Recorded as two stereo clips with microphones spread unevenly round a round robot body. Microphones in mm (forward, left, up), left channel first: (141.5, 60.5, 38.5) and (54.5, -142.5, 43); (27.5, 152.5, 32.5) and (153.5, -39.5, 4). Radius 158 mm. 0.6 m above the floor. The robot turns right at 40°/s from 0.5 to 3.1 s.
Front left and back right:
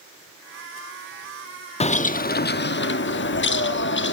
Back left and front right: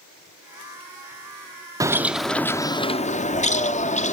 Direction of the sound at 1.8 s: 10° left.